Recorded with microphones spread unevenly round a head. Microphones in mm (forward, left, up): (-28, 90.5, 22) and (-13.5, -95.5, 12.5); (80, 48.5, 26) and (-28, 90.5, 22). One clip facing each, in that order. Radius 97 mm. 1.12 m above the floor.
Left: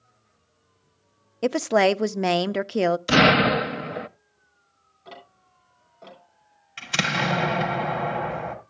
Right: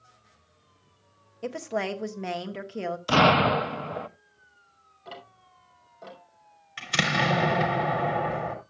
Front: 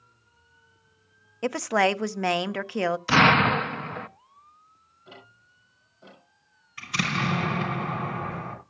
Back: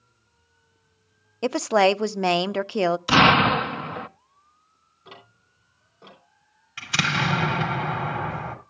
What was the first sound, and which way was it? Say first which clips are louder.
A woman speaking: left 11 dB, back 4 dB; 95° left.